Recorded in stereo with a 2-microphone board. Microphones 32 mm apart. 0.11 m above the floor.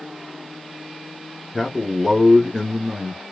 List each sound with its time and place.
1.5 s a man speaking: 5° left (ahead or behind), 1.3 m